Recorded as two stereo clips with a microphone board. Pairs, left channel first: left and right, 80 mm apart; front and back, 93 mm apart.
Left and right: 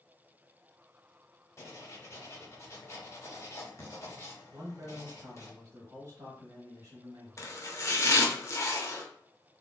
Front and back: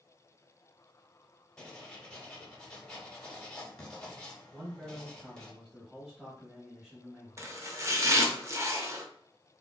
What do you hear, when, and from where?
1.6 s writing: 75° left, 0.9 m
4.5 s a man speaking: 100° right, 1.0 m
7.4 s chopping: 130° left, 0.5 m